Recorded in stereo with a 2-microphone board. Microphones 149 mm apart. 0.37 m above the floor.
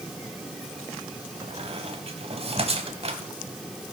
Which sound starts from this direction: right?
A squeak, at 1.4 s.